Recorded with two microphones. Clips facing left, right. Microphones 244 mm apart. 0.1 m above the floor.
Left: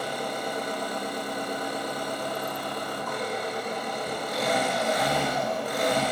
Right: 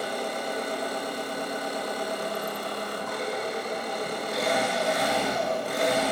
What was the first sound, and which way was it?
An engine running, 30° right (ahead or behind).